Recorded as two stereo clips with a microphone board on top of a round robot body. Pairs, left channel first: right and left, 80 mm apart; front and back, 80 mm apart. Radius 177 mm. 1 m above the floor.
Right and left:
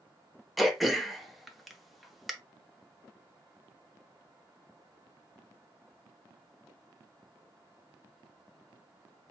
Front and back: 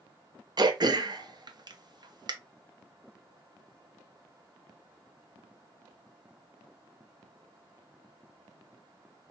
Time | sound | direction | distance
0.6 | throat clearing | straight behind | 1.0 m